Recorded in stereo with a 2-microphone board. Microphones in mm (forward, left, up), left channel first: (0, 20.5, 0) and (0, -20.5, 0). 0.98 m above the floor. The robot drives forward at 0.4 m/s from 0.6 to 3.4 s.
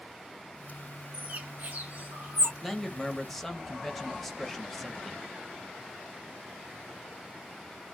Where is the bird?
35° right (ahead or behind), 1.0 m; by 2.5 s 50° right (ahead or behind), 0.8 m.